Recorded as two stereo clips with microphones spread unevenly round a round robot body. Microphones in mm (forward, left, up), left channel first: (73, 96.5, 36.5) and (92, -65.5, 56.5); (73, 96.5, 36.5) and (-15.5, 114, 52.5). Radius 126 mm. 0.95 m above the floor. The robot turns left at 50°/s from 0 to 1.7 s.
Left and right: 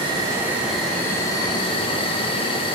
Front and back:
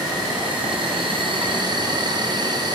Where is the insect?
140° right, 1.0 m; by 2.8 s 135° left, 1.0 m.